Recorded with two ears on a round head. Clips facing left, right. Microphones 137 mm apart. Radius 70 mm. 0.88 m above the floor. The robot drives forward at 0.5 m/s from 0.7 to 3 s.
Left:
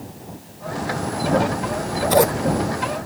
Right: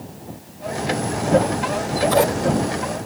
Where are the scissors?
20° left (ahead or behind), 0.6 m; by 3.0 s 15° left (ahead or behind), 0.8 m.